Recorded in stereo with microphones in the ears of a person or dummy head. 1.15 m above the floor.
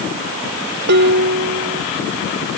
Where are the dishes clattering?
60° right (ahead or behind).